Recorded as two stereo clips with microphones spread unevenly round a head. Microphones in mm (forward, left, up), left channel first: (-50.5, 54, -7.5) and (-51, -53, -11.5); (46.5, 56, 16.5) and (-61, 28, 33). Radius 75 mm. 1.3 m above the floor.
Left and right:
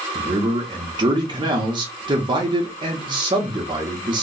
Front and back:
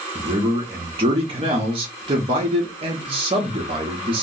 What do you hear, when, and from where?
0.1 s a man speaking: 125° right, 0.8 m